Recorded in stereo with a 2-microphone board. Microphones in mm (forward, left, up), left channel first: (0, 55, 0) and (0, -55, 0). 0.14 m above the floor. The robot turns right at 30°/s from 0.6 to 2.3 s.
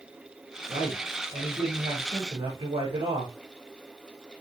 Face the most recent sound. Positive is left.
turn(degrees=-70)